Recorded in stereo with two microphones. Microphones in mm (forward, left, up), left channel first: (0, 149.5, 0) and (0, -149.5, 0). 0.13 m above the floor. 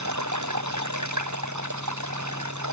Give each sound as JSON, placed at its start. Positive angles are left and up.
{"t": 0.0, "sound": "running water", "side_deg": -70}